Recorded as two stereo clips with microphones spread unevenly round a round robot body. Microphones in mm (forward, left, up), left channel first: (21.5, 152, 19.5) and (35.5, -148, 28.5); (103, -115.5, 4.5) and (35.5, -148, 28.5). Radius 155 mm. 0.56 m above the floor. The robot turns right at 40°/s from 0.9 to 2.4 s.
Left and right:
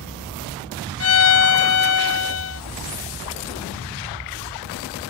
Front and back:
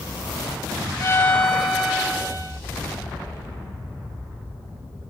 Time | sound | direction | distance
1.0 | a violin | 65° left | ?